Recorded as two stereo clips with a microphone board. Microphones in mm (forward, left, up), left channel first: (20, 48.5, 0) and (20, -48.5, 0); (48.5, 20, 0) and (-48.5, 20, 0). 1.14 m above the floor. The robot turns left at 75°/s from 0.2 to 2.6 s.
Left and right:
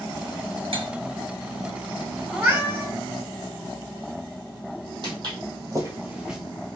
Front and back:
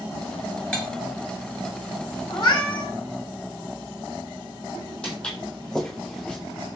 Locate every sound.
0.7 s cutlery clinking: 80° right, 1.2 m; by 0.9 s 90° right, 1.2 m
2.3 s a cat meowing: 20° right, 1.6 m; by 2.9 s 40° right, 1.6 m
5.0 s footsteps: 80° right, 1.9 m; by 6.4 s 35° right, 1.1 m